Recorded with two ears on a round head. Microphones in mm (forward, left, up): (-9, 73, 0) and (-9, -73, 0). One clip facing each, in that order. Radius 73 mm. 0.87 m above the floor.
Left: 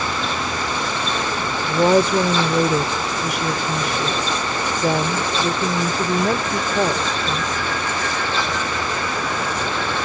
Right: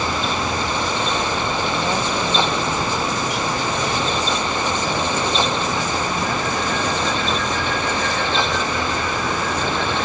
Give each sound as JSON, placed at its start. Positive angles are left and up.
{"t": 1.7, "sound": "a woman speaking", "side_deg": 60}